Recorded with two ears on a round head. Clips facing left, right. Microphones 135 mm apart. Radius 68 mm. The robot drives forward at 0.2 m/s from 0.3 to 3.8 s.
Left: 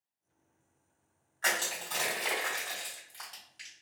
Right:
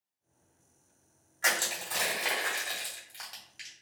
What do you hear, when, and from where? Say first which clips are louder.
1.4 s crushing: right 1 dB; 15° right (ahead or behind), 1.8 m; by 3.7 s 10° right (ahead or behind), 2 m